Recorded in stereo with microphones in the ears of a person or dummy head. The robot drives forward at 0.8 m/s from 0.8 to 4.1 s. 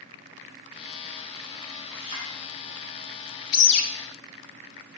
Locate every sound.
1.9 s a clink: 30° left (ahead or behind), 3 m
3.5 s a bird: 80° left, 0.8 m; by 3.9 s 75° left (ahead or behind), 0.8 m